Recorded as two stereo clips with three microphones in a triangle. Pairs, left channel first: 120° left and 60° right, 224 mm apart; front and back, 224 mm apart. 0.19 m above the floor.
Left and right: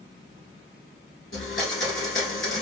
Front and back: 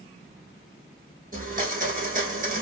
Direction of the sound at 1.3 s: 135° left.